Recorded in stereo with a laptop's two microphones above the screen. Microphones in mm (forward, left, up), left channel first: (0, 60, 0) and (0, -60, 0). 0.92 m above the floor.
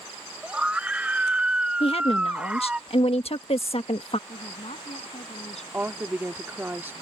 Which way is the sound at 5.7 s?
15° right (ahead or behind).